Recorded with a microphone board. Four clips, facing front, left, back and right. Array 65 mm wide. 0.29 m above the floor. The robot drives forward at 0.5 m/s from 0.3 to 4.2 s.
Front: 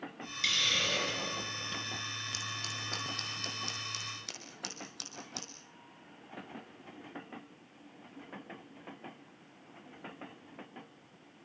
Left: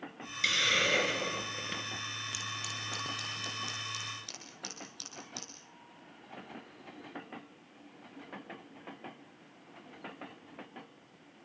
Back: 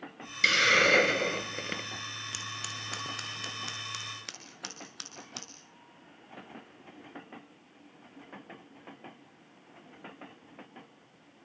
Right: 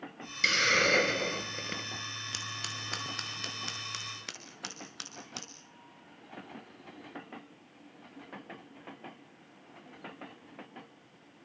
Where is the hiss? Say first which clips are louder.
Right 4 dB, back 11 dB; 155° right, 1.0 m; by 1.9 s 165° right, 1.7 m.